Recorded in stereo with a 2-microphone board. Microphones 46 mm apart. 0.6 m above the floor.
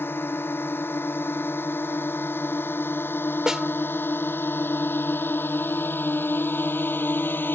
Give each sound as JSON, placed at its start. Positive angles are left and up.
{"t": 0.0, "sound": "a drone", "side_deg": 50}
{"t": 3.5, "sound": "a snare drum", "side_deg": -10}